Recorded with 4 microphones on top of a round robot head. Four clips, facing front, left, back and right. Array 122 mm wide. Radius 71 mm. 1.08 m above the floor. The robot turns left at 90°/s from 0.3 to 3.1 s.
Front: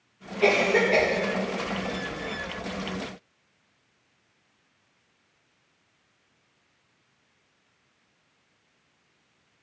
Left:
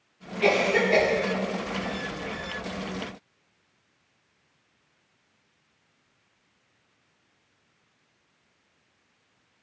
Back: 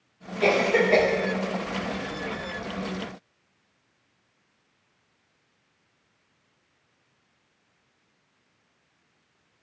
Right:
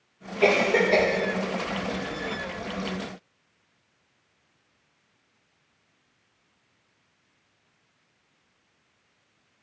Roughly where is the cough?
Right.